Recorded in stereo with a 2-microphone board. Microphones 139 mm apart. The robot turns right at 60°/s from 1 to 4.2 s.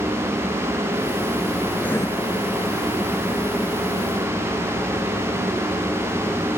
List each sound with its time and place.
1.8 s writing: 5° left (ahead or behind); by 2.1 s 25° left (ahead or behind)